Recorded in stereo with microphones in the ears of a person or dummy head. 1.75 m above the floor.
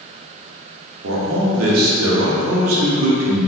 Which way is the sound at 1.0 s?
85° right.